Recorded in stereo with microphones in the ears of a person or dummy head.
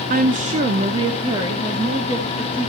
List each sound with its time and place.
0.1 s a woman speaking: 50° right (ahead or behind), 0.8 m; by 2.7 s 20° right (ahead or behind), 2.5 m